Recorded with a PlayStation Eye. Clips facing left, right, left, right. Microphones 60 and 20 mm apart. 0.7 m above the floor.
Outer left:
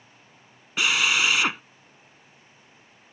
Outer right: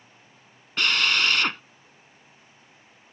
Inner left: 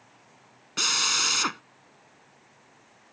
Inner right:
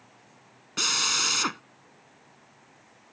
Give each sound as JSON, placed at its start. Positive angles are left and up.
{"t": 0.8, "sound": "a drill", "side_deg": 5}